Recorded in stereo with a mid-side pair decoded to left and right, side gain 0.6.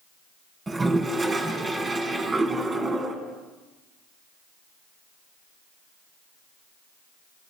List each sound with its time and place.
0.7 s a toilet flushing: 25° right, 3.5 m